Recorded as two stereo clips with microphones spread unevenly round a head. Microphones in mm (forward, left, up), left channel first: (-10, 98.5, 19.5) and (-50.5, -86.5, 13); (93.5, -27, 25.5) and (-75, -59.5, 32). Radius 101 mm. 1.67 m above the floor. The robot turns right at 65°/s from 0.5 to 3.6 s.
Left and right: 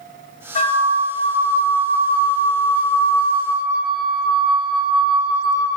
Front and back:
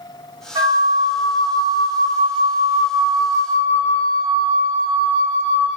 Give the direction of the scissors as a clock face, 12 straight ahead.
No scissors in this recording.